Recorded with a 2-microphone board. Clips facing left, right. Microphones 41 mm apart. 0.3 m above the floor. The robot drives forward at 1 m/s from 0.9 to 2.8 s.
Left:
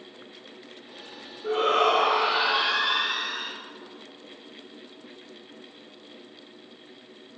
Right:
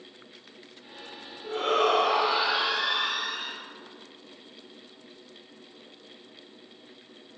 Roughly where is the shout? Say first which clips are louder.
Left 3 dB; left.